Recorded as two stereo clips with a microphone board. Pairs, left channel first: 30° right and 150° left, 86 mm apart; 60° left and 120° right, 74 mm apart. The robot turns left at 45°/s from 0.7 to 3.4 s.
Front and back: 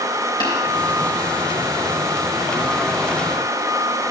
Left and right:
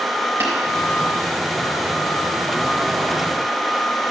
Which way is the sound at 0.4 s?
60° right.